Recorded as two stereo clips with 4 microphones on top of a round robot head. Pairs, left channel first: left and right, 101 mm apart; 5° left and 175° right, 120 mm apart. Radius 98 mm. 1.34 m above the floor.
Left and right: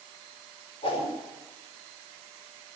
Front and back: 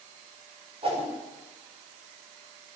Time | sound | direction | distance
0.8 | a whoosh | 145° left | 4.5 m